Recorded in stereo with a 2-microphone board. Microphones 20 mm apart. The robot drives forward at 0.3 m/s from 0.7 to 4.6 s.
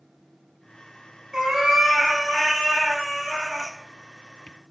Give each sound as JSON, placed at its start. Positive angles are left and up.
{"t": 1.3, "sound": "a cat meowing", "side_deg": -20, "distance_m": 0.9}